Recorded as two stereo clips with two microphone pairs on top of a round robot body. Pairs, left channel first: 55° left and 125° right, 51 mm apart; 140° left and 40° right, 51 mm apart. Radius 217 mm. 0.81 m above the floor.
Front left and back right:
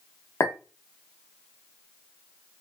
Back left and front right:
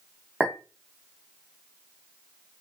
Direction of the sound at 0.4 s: 30° left.